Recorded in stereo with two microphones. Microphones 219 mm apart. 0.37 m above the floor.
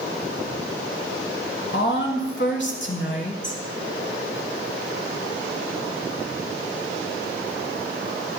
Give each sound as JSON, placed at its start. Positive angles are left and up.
{"t": 1.7, "sound": "a woman speaking", "side_deg": 50, "distance_m": 1.2}